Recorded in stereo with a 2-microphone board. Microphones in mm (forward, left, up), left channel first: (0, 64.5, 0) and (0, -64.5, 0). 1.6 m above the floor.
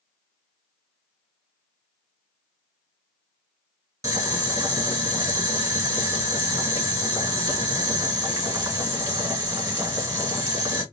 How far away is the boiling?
About 1.7 m.